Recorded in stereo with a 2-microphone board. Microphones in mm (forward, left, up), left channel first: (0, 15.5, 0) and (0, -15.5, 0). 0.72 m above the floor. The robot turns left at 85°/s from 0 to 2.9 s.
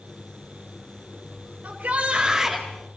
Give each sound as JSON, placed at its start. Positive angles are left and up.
{"t": 1.6, "sound": "a shout", "azimuth_deg": -105, "distance_m": 4.0}